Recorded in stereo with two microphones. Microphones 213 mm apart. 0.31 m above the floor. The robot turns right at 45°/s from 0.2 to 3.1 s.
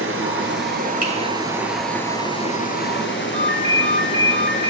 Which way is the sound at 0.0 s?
70° right.